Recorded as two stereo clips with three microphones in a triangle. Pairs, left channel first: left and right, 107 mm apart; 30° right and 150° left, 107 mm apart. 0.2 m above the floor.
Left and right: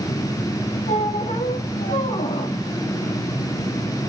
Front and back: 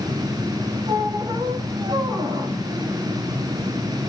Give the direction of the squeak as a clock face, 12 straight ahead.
9 o'clock.